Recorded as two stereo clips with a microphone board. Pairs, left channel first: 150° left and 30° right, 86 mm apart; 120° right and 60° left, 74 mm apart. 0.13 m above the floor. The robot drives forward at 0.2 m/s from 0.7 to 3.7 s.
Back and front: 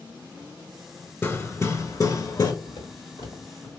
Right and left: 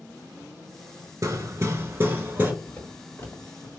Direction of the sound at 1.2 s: 95° left.